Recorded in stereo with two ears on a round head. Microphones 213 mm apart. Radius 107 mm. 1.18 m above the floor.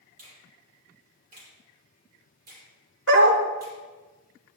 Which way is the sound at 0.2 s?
35° right (ahead or behind).